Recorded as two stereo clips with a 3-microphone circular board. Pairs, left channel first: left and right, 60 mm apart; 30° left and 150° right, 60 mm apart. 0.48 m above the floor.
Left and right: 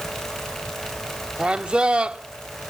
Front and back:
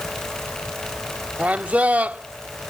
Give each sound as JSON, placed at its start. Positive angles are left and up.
{"t": 1.4, "sound": "a man speaking", "azimuth_deg": -135}